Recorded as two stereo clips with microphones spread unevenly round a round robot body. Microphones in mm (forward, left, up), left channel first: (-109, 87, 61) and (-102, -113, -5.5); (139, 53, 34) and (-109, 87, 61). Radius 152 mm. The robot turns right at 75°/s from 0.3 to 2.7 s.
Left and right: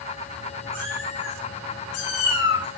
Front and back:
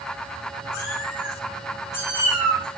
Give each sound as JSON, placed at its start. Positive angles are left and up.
{"t": 0.7, "sound": "a cat meowing", "azimuth_deg": -20, "distance_m": 5.5}